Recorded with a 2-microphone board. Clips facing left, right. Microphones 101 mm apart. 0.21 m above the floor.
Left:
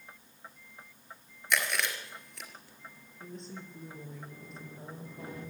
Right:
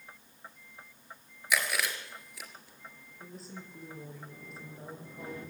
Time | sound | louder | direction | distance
1.5 | chewing | even | 5° right (ahead or behind) | 3.5 m
3.2 | a woman speaking | left 2 dB | 5° right (ahead or behind) | 5.5 m